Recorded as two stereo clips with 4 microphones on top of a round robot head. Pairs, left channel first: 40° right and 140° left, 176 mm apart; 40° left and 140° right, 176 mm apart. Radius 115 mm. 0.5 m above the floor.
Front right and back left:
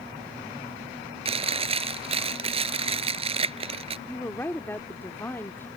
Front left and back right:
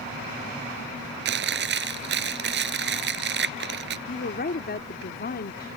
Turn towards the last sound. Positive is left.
turn(degrees=35)